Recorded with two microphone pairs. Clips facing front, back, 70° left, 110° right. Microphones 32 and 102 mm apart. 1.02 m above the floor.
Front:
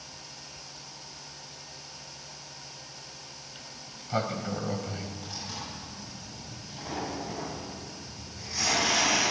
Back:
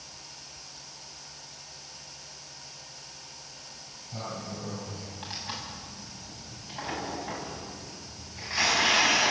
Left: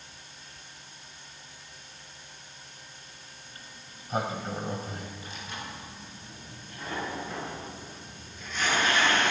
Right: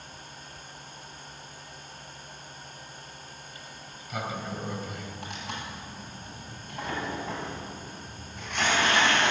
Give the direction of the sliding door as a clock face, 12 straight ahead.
11 o'clock.